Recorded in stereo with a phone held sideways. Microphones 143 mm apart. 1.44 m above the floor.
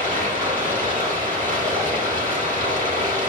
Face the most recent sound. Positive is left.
turn(degrees=-60)  # may be behind; listen again after turning